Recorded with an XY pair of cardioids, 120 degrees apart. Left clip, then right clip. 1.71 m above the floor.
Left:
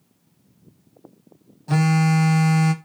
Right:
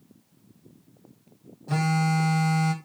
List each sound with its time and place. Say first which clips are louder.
1.7 s a phone buzzing: left 4 dB; 40° left, 1.4 m